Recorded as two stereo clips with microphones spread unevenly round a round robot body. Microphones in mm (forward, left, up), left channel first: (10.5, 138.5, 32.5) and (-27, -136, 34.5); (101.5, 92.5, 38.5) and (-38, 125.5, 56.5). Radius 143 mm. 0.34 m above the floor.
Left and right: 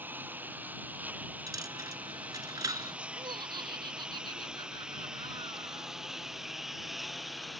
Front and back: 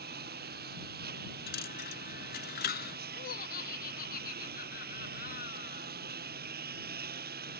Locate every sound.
0.0 s a lawn mower: straight behind; by 7.6 s 170° left
1.5 s a dropped coin: 20° right
3.1 s laughter: 25° right